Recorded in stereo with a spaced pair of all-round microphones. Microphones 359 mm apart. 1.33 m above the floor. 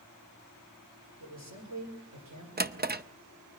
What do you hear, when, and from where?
1.2 s a man speaking: 45° right (ahead or behind), 6 m; by 2.5 s 55° right (ahead or behind), 6 m
2.6 s a drawer: 25° right (ahead or behind), 0.6 m